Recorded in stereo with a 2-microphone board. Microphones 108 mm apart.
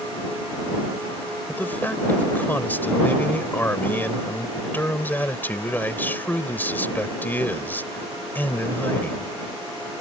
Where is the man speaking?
20° left (ahead or behind).